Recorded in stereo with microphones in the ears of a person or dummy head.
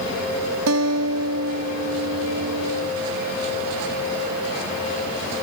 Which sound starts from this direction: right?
A guitar, at 0.7 s.